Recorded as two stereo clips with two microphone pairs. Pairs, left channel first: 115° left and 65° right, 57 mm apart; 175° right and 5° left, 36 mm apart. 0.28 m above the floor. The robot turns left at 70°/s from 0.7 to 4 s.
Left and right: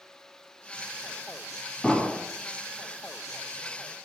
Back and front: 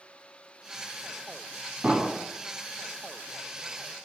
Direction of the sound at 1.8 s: 45° left.